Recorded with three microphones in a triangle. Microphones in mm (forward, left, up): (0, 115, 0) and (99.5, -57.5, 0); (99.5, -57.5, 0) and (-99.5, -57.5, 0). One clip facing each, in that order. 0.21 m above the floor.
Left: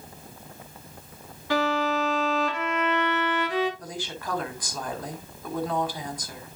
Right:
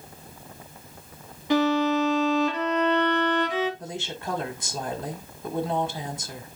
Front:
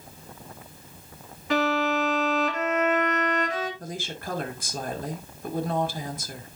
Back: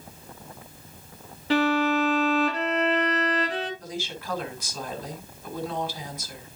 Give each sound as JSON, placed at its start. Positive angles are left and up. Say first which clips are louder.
{"t": 1.5, "sound": "a violin", "louder": "right 4 dB, back 2 dB", "azimuth_deg": -125, "distance_m": 2.5}
{"t": 3.8, "sound": "a woman speaking", "louder": "right 2 dB, even", "azimuth_deg": -5, "distance_m": 1.7}